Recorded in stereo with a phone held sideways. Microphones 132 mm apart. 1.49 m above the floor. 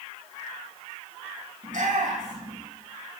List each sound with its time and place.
1.6 s a shout: 85° right, 9 m